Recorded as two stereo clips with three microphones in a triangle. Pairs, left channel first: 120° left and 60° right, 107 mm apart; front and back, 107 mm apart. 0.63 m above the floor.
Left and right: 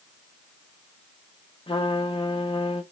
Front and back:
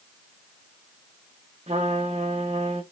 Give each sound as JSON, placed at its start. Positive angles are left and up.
{"t": 1.7, "sound": "a trumpet", "azimuth_deg": 160, "distance_m": 0.8}